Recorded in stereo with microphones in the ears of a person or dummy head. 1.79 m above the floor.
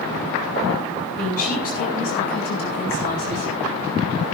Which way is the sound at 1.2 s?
40° left (ahead or behind).